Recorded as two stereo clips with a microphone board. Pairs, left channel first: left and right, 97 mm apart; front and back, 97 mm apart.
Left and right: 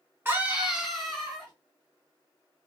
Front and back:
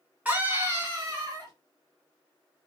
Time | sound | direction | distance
0.2 | a scream | 130° right | 1.5 m